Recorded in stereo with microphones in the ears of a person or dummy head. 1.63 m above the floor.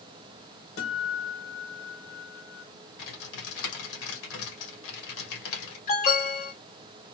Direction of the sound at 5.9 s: 50° left (ahead or behind).